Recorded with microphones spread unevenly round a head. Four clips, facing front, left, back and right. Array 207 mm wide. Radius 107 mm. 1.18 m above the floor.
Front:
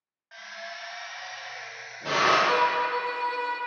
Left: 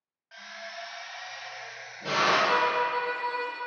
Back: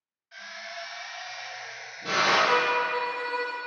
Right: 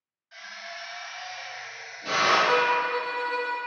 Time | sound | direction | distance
0.3 | a drill | 30° left | 2 m
2.5 | a violin | 75° right | 0.7 m